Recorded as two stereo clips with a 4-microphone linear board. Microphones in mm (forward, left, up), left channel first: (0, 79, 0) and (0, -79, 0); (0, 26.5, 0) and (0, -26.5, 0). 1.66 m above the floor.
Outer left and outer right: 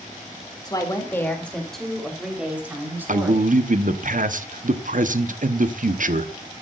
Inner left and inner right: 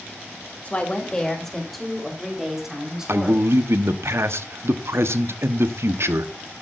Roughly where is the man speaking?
Right.